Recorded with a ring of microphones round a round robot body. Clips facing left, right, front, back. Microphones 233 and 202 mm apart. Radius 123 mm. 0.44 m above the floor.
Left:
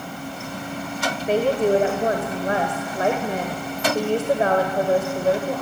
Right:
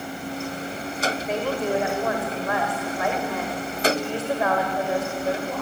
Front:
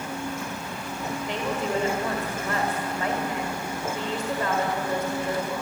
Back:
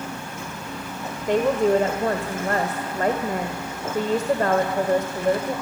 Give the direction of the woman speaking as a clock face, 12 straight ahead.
7 o'clock.